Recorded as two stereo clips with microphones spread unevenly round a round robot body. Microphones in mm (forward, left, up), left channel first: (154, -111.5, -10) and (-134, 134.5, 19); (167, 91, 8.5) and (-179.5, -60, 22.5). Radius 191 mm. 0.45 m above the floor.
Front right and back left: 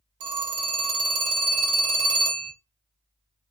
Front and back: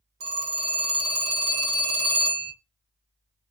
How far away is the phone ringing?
About 1.2 m.